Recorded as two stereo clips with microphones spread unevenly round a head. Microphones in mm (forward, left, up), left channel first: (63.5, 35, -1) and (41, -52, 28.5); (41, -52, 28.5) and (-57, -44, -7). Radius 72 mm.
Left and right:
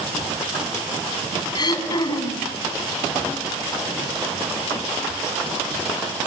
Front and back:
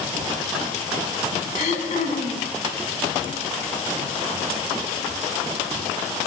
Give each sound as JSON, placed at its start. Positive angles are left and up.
{"t": 1.6, "sound": "throat clearing", "azimuth_deg": 30, "distance_m": 6.0}